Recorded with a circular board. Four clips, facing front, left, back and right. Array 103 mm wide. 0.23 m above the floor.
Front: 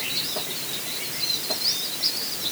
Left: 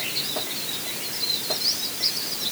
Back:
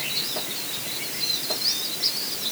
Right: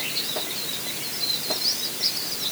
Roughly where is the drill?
I don't hear a drill.